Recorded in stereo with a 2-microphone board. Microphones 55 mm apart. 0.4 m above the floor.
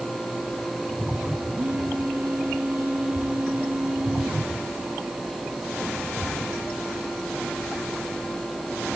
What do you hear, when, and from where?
1.6 s a phone buzzing: 35° right (ahead or behind), 6.5 m